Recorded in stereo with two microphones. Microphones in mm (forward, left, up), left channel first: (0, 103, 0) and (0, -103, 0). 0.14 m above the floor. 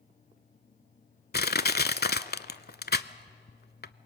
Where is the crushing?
55° left (ahead or behind), 0.5 m.